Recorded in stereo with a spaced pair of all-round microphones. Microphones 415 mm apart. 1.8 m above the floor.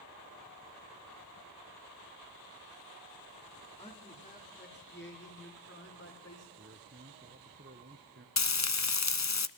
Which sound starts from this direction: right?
A man speaking, at 6.6 s.